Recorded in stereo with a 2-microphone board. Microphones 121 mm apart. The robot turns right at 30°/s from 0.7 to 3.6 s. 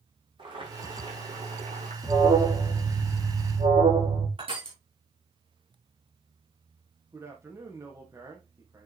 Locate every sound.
0.4 s boiling: 140° right, 7 m; by 1.9 s 100° right, 7 m
2.0 s an alarm: 140° right, 5.5 m; by 4.3 s 95° right, 5.5 m
4.4 s crushing: 50° right (ahead or behind), 5 m
7.1 s a man speaking: 25° right (ahead or behind), 4 m